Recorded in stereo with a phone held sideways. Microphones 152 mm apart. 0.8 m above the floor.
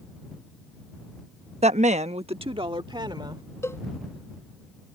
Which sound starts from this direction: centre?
A cowbell, at 3.6 s.